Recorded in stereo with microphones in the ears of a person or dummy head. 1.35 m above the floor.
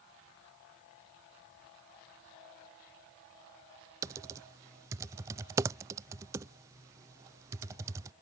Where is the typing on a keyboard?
15° right (ahead or behind).